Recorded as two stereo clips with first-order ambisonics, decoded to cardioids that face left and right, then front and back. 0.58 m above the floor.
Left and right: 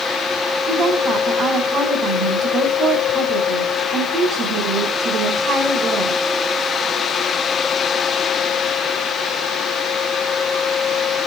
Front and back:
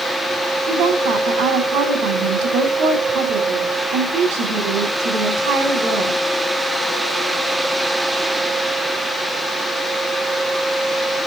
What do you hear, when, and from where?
0.7 s a woman speaking: 160° right, 7 m